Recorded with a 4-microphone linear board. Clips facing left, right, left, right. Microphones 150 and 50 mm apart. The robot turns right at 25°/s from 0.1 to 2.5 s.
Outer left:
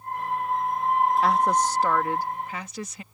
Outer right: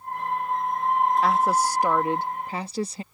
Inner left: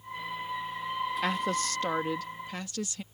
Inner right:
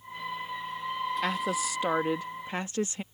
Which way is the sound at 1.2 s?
Straight behind.